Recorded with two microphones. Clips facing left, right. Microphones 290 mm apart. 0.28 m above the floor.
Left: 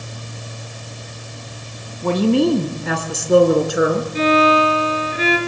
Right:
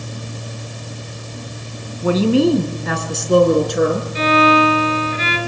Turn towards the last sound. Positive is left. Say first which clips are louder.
# right 1 dB
turn(degrees=50)  # may be behind; listen again after turning